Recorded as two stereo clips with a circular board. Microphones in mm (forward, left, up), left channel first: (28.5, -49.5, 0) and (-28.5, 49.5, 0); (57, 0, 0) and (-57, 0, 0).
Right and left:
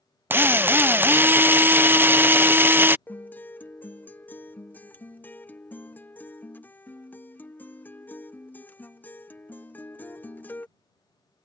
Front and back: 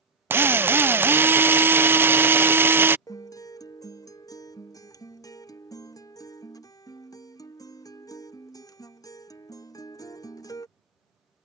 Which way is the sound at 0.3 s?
150° left.